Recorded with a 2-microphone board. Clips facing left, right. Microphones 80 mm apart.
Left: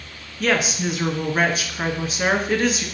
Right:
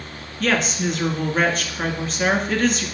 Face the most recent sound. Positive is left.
turn(degrees=5)  # may be behind; listen again after turning